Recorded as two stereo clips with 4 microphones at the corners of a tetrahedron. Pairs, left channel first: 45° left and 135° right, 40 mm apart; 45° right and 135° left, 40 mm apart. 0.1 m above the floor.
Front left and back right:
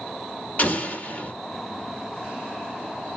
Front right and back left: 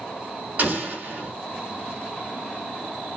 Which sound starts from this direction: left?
An explosion, at 0.6 s.